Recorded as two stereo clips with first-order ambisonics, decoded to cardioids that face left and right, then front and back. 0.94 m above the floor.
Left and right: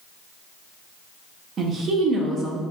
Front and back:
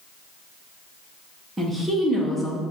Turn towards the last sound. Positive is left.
turn(degrees=-105)